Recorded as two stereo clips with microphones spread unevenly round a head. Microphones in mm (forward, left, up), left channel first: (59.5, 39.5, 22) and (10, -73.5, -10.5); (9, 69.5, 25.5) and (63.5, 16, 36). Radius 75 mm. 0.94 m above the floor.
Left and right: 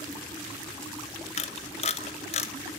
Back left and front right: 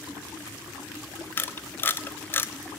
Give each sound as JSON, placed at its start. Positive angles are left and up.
{"t": 1.4, "sound": "a camera shutter", "azimuth_deg": 100, "distance_m": 1.0}